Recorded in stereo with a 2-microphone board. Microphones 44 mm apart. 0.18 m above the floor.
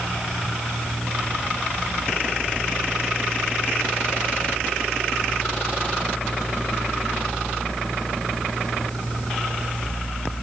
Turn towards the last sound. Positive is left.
No sound to turn to.